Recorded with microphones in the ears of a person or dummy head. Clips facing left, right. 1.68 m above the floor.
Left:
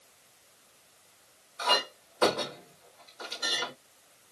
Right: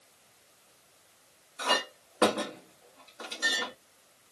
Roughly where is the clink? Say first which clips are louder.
Left 1 dB; right.